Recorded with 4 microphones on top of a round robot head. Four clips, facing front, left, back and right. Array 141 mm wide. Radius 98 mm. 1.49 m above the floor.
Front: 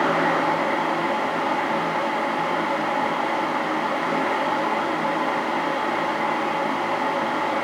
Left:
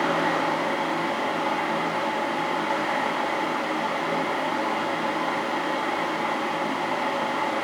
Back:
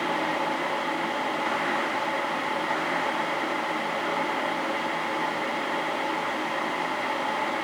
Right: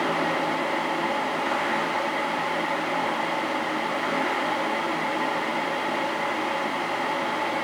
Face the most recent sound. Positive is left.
No sound to turn to.